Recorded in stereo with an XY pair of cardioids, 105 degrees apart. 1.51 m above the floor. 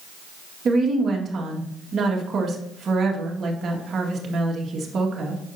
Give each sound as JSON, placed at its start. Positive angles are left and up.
{"t": 0.7, "sound": "a woman speaking", "azimuth_deg": -50, "distance_m": 2.0}